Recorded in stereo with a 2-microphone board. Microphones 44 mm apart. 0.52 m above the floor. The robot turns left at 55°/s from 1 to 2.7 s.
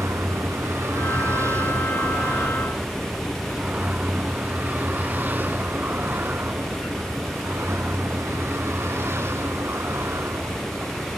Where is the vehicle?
75° right (ahead or behind).